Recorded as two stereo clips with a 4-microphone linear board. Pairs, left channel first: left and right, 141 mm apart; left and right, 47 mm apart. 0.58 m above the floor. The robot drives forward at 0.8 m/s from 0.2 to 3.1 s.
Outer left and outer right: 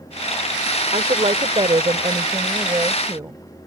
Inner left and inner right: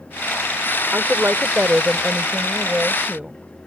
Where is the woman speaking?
50° right (ahead or behind); by 3.4 s 25° right (ahead or behind).